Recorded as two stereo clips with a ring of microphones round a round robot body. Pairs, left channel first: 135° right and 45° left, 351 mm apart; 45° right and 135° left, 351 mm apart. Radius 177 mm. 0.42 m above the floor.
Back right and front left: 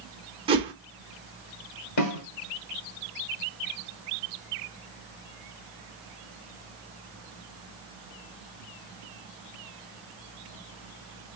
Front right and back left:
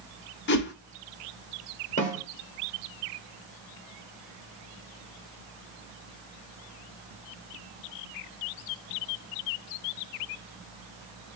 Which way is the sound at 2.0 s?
110° right.